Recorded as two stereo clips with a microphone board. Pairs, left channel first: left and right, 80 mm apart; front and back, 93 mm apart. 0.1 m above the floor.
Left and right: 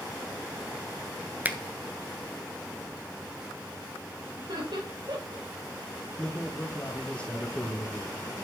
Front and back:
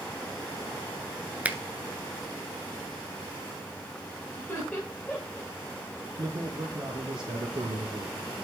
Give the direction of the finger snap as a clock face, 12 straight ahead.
4 o'clock.